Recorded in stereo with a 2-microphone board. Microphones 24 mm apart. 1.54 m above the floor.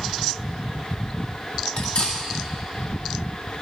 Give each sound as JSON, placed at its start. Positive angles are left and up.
{"t": 1.8, "sound": "cutlery clinking", "side_deg": 60, "distance_m": 2.0}